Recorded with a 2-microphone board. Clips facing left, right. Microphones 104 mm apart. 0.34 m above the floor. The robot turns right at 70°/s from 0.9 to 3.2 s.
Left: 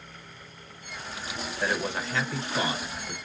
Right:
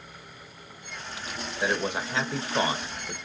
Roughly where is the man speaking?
Behind.